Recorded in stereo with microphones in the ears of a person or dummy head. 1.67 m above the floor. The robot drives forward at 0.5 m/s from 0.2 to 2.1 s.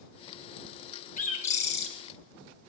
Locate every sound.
1.2 s a bird: 40° left (ahead or behind), 0.9 m; by 1.9 s 25° left (ahead or behind), 1.2 m